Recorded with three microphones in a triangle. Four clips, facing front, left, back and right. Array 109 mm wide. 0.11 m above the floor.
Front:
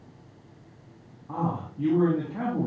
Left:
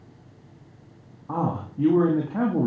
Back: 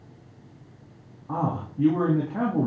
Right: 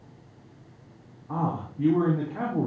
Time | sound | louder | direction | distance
1.3 | a man speaking | left 2 dB, back 2 dB | 105° left | 6.5 m